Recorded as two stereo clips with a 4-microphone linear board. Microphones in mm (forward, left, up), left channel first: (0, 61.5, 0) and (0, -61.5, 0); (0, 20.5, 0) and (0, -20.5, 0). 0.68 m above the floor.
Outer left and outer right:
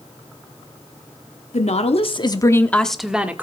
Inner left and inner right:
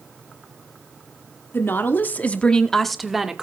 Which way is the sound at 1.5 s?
65° left (ahead or behind).